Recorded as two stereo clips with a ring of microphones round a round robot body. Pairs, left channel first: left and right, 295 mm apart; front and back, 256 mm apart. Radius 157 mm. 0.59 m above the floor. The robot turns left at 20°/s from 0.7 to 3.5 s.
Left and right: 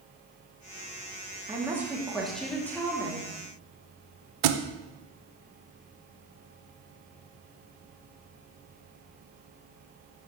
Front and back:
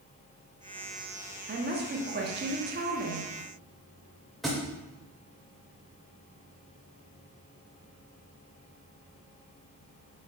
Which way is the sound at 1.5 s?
165° right.